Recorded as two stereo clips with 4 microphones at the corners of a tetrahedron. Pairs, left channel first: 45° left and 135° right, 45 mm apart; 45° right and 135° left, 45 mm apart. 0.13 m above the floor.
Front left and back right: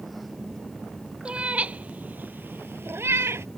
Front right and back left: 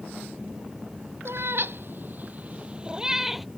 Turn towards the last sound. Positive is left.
turn(degrees=-135)